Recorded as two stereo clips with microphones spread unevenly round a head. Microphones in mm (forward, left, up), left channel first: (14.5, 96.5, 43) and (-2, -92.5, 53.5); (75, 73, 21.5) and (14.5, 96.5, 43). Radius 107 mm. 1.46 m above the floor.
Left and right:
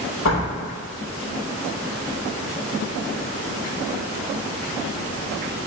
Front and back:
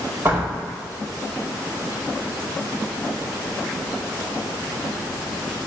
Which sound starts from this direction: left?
A door slam, at 0.2 s.